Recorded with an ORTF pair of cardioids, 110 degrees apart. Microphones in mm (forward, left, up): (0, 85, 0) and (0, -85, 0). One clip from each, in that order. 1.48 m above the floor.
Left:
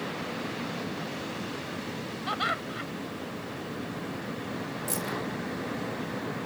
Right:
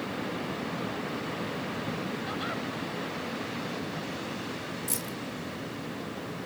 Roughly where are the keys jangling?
Ahead.